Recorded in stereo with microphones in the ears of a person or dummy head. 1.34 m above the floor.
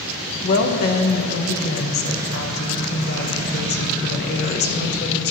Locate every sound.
0.4 s a woman speaking: 55° left (ahead or behind), 1.0 m